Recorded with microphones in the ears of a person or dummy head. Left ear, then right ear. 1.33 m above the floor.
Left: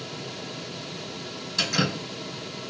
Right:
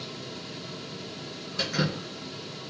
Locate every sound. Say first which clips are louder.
1.6 s dripping: left 4 dB; 65° left (ahead or behind), 2.5 m